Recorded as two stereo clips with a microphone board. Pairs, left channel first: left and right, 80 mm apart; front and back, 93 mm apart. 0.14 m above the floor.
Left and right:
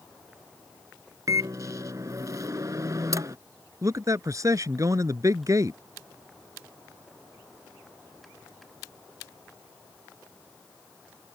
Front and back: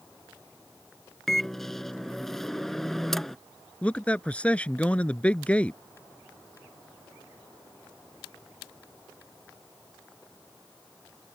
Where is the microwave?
85° right.